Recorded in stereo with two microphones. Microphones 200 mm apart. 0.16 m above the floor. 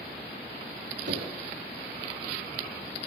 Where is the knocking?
65° right (ahead or behind), 6 m.